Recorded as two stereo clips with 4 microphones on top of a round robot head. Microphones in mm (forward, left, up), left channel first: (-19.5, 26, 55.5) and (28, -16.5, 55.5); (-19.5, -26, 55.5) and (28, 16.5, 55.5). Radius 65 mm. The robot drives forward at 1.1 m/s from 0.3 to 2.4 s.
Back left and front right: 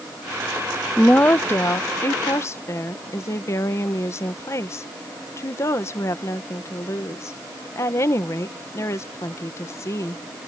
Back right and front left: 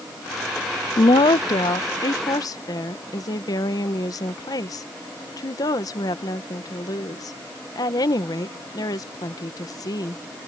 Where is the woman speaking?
140° right; by 10.2 s 170° right.